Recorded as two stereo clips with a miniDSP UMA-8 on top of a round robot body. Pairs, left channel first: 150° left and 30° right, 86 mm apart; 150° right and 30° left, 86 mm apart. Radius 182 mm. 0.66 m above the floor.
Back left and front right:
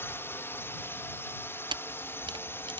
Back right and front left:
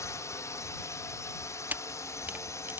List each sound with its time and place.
0.0 s a drone: 165° right
1.7 s a camera shutter: 40° right